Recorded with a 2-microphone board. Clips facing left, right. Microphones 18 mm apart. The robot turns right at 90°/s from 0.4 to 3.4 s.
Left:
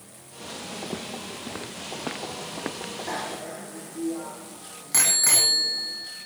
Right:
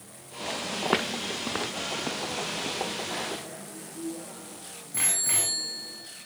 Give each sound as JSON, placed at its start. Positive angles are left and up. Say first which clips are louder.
{"t": 0.8, "sound": "footsteps", "louder": "right 11 dB", "side_deg": -70, "distance_m": 0.6}
{"t": 3.1, "sound": "a bicycle bell", "louder": "left 2 dB", "side_deg": 80, "distance_m": 6.0}